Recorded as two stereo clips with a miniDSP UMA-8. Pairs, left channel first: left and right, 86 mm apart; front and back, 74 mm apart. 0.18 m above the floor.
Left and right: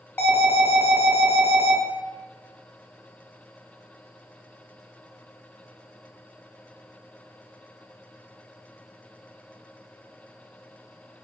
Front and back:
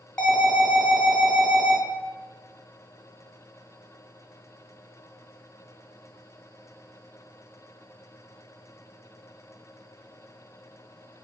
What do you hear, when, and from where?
0.2 s an alarm: 60° left, 1.0 m